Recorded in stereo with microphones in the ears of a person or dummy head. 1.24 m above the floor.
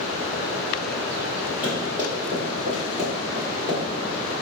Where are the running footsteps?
10° right (ahead or behind), 1.8 m; by 4.1 s 25° right (ahead or behind), 1.4 m.